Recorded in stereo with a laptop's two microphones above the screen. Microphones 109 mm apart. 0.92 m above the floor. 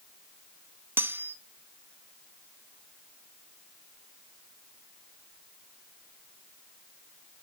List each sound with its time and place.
1.0 s cutlery clinking: 20° right (ahead or behind), 0.6 m